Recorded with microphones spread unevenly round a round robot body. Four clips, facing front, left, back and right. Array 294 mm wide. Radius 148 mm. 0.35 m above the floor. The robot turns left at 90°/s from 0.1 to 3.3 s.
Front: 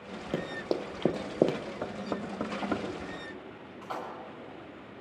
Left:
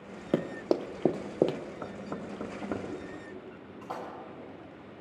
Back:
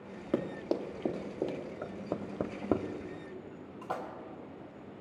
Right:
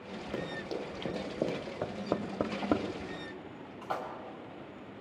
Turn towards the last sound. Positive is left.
turn(degrees=180)